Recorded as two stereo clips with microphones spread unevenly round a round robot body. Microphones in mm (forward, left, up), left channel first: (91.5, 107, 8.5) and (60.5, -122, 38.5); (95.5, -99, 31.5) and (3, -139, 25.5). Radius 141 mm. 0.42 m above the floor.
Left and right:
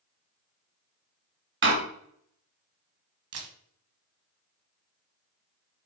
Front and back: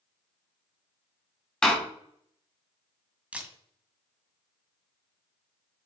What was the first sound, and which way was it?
A door slam, 60° right.